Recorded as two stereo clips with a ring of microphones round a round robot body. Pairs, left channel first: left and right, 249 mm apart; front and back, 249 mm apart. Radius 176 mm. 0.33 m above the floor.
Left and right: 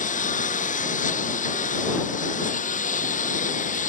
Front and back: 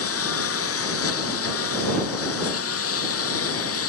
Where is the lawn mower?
30° left.